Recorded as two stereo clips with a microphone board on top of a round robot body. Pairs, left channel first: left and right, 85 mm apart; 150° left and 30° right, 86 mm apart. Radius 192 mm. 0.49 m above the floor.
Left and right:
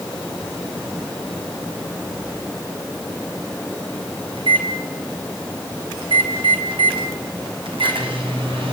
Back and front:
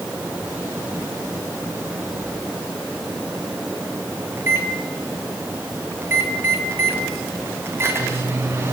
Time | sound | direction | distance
4.4 | a microwave | 95° right | 5 m